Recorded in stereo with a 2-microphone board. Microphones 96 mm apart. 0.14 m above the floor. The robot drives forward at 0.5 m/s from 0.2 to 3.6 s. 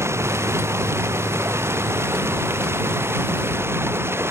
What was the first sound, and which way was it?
Running water, 30° right (ahead or behind).